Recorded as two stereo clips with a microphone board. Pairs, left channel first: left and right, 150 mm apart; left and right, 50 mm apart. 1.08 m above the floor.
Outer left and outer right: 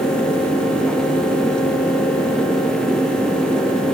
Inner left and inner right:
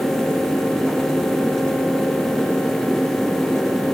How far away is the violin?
No violin in this recording.